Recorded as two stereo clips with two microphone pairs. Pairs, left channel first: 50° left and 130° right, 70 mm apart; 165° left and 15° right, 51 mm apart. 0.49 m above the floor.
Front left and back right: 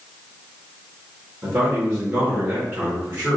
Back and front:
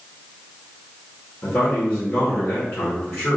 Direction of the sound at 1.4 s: 175° left.